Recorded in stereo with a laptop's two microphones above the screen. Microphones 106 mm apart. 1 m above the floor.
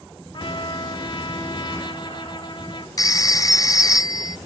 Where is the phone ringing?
35° left (ahead or behind), 0.7 m.